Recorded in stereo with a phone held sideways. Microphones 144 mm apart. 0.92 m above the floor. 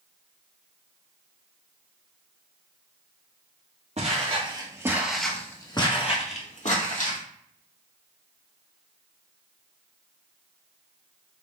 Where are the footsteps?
50° right (ahead or behind), 1.4 m; by 7.2 s 65° left (ahead or behind), 2.0 m.